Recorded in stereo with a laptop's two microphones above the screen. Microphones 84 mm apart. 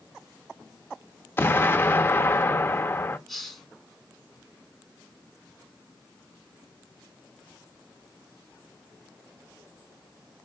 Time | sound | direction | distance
1.4 | an explosion | 25° left (ahead or behind) | 0.7 m
3.3 | a hiss | 5° left (ahead or behind) | 1.3 m